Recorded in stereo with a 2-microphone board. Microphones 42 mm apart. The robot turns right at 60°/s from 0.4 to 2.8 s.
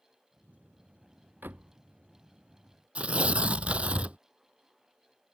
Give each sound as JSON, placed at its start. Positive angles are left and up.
{"t": 1.4, "sound": "a door slam", "side_deg": -55}
{"t": 3.0, "sound": "tearing paper", "side_deg": -30}